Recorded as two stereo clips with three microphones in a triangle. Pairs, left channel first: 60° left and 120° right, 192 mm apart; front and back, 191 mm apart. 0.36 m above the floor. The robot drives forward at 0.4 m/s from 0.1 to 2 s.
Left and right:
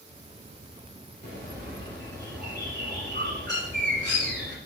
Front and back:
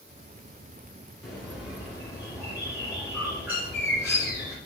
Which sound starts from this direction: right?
A bird, at 1.2 s.